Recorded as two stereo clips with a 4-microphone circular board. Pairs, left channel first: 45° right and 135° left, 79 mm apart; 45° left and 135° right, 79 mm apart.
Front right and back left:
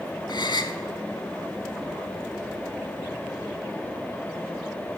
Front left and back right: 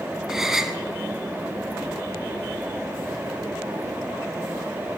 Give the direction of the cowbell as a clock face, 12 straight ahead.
No cowbell in this recording.